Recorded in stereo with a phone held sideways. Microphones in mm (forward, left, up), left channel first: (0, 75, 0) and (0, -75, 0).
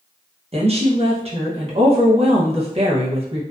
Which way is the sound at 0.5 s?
40° right (ahead or behind).